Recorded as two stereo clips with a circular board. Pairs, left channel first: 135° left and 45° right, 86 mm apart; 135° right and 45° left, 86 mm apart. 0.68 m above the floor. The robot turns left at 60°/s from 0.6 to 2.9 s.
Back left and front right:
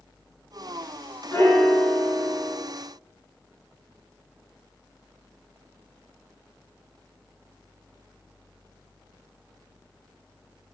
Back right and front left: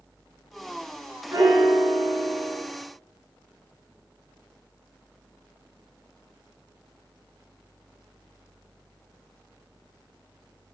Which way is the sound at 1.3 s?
85° left.